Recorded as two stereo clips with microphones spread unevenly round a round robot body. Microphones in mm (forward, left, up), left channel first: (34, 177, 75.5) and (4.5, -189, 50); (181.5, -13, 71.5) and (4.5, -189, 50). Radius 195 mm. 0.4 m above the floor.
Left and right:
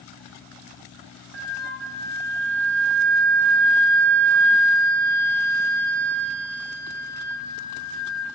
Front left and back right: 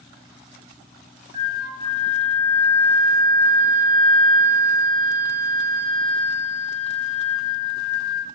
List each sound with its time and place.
1.3 s a flute: 155° right, 0.7 m